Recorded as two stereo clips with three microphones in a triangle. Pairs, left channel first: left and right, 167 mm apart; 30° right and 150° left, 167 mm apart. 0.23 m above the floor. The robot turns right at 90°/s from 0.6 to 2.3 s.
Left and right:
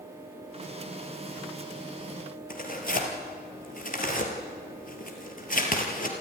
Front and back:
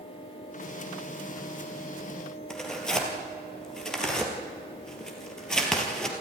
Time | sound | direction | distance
2.5 | tearing paper | 55° left | 3.5 m